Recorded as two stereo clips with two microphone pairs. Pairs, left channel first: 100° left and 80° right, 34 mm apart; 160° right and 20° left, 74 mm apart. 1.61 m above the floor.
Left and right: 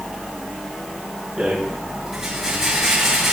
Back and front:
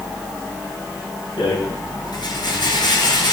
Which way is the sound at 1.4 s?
150° right.